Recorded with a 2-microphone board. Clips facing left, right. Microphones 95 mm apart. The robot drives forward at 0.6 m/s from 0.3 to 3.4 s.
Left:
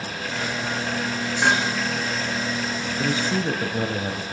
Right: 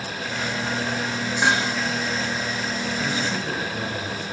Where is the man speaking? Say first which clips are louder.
Left 6 dB; 35° left (ahead or behind), 1.6 m.